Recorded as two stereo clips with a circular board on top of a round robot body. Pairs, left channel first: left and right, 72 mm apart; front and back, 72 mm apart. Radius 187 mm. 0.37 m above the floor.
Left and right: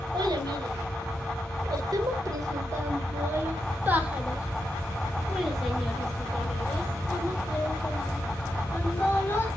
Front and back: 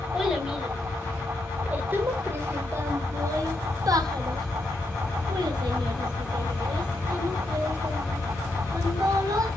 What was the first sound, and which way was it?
A child speaking, 95° right.